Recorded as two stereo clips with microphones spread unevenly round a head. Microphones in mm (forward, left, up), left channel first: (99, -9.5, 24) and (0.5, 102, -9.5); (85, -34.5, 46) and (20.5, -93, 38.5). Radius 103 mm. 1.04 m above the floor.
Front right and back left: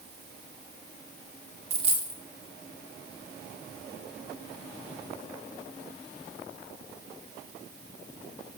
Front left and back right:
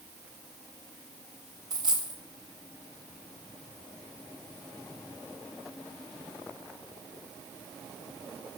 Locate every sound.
1.7 s a dropped coin: 175° right, 0.6 m